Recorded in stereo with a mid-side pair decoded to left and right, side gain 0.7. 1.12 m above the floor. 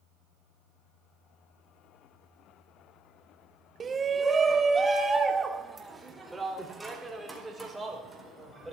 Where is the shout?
25° right, 1.1 m; by 8.7 s 10° right, 5 m.